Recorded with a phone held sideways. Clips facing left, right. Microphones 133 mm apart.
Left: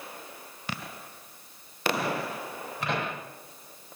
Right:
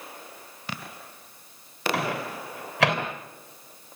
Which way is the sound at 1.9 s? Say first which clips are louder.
Right 1 dB; 85° right.